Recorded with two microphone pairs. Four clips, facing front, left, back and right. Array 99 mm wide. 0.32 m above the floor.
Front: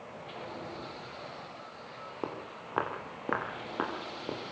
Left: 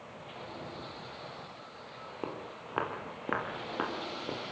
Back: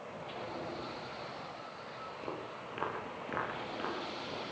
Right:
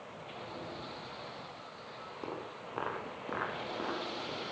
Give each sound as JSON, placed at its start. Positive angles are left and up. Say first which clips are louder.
{"t": 2.2, "sound": "footsteps", "louder": "left 2 dB, front 4 dB", "azimuth_deg": 15, "distance_m": 10.0}